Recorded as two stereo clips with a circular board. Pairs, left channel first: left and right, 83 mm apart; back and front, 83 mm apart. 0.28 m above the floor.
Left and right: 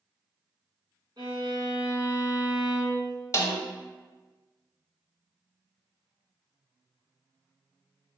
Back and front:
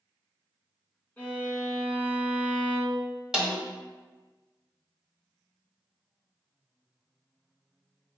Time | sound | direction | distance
1.2 | a violin | 115° right | 1.7 m
3.3 | a snare drum | 75° left | 0.8 m